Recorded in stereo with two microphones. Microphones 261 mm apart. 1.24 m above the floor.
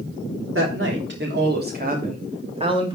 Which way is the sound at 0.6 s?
50° right (ahead or behind).